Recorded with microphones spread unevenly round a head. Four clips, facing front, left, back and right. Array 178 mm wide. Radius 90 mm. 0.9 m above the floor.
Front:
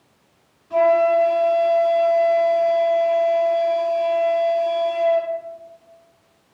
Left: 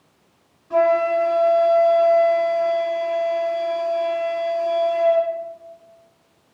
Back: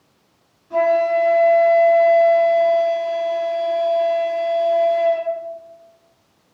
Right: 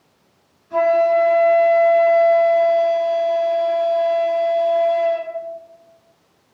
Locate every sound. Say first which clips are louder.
0.7 s a flute: right 2 dB, front 1 dB; 110° left, 4 m